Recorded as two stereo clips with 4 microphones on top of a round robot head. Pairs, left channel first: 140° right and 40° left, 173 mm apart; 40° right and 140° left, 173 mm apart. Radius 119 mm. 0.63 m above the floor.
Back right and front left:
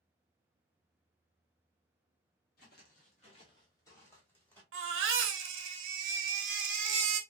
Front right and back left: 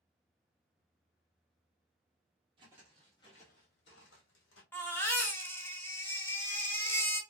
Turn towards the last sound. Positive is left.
turn(degrees=35)